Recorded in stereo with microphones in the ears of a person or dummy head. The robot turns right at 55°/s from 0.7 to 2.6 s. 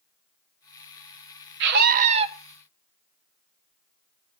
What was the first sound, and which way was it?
A scream, 70° right.